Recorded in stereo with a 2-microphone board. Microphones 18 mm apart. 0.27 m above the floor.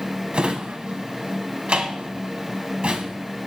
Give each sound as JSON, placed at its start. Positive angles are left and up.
{"t": 0.3, "sound": "a drawer", "side_deg": -70, "distance_m": 0.5}